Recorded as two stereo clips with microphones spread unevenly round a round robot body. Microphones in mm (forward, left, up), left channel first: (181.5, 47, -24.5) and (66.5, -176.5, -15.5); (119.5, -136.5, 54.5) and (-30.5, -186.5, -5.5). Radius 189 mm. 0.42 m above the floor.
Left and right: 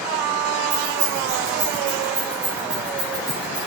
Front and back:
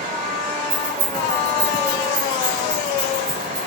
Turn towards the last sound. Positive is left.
turn(degrees=140)